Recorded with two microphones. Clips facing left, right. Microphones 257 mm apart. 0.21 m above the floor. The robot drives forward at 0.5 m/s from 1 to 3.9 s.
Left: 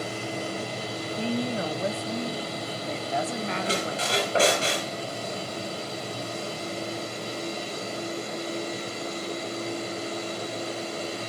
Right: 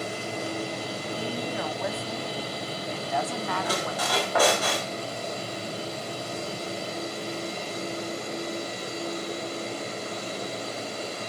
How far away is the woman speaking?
About 1.2 m.